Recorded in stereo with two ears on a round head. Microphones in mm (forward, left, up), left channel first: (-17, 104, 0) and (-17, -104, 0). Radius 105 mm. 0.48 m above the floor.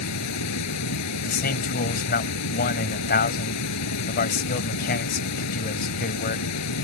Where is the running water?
85° left.